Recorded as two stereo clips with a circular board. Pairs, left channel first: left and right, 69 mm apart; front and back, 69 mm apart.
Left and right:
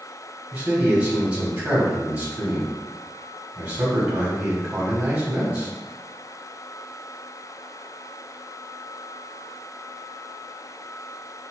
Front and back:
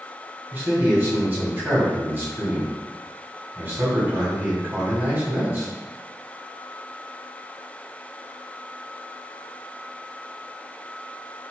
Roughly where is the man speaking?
Behind right.